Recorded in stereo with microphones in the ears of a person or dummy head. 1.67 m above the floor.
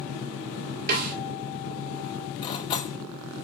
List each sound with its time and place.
0.9 s a snare drum: 45° right (ahead or behind), 2.5 m
2.4 s cutlery clinking: 25° left (ahead or behind), 1.5 m